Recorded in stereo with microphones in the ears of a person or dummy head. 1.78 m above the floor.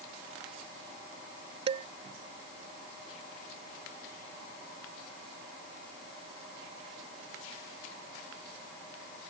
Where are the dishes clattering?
30° right (ahead or behind).